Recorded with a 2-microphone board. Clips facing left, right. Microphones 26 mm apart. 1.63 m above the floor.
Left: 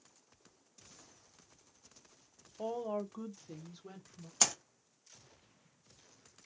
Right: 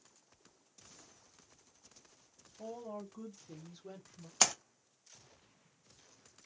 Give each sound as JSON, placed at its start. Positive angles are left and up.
{"t": 2.6, "sound": "a woman speaking", "side_deg": 65, "distance_m": 0.9}
{"t": 4.4, "sound": "a splash", "side_deg": -15, "distance_m": 0.8}